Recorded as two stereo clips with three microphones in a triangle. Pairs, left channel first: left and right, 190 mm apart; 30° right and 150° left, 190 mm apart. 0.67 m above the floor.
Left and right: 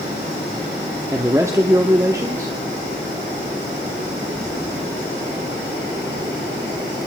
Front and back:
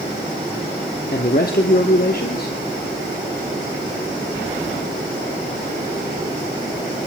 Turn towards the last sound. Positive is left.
turn(degrees=-20)